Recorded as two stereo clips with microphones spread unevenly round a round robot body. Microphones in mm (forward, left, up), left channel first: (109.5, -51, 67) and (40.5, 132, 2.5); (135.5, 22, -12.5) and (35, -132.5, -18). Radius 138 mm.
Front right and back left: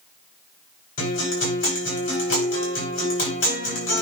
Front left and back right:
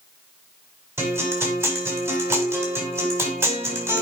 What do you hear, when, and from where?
1.0 s a guitar: 50° right, 5.5 m